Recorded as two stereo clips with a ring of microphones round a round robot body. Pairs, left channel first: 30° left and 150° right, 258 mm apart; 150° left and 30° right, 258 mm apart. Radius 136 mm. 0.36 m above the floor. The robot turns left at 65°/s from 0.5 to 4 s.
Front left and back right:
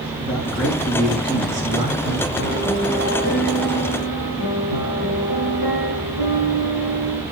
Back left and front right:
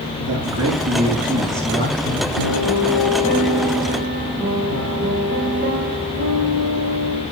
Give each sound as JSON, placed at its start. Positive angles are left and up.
{"t": 0.2, "sound": "a man speaking", "azimuth_deg": -55, "distance_m": 4.5}
{"t": 2.4, "sound": "a piano", "azimuth_deg": 135, "distance_m": 4.5}